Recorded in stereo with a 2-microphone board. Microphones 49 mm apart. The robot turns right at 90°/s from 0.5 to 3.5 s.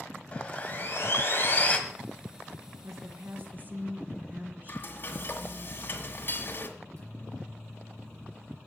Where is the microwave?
65° right (ahead or behind), 6 m.